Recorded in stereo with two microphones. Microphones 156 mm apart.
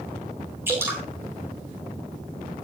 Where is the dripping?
15° right (ahead or behind), 5 m.